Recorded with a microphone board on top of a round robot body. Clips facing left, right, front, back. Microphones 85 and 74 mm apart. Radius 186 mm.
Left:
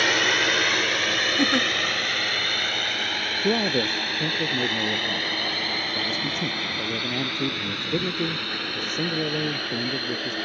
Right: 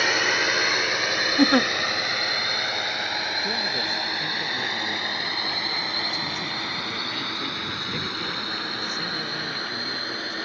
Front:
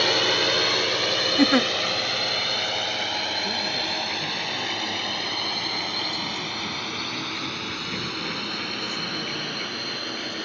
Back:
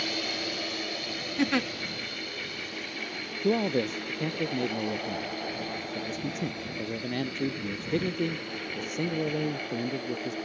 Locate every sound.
0.0 s a drone: 5° right; by 10.4 s 20° right
1.4 s a giggle: 55° right
3.4 s a man speaking: 145° left